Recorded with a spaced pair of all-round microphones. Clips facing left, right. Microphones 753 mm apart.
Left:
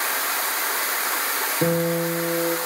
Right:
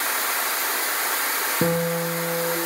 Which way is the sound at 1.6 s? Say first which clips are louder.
Left 2 dB; 35° right (ahead or behind).